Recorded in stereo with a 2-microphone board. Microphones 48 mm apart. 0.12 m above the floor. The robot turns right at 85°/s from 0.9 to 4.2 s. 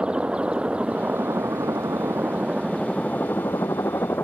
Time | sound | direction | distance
0.0 | a helicopter | 160° right | ?